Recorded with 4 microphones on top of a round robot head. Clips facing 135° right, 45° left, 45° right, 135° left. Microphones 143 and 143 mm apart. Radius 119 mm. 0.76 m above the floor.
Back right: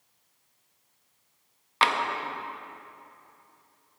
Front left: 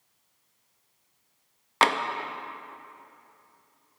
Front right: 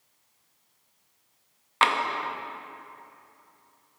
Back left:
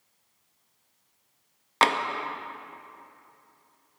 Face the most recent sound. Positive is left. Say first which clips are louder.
# front left 2 dB, back left 1 dB
turn(degrees=85)